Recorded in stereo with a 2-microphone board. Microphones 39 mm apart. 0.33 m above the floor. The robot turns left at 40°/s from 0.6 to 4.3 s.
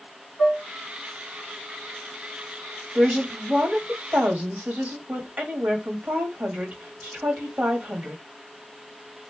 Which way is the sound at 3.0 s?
30° right.